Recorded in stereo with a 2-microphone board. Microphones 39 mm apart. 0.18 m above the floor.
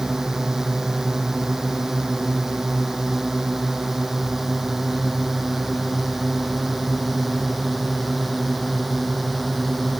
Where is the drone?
10° right (ahead or behind); by 10.0 s centre (ahead or behind).